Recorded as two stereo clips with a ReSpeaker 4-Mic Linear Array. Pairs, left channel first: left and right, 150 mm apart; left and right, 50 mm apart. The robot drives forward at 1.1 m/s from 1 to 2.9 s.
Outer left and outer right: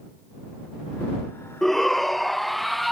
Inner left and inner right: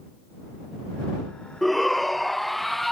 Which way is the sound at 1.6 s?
Centre (ahead or behind).